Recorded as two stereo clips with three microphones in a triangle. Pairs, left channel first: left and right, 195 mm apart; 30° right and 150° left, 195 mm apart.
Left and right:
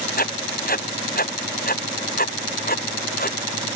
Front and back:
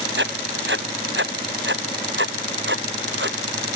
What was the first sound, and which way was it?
Writing, 130° left.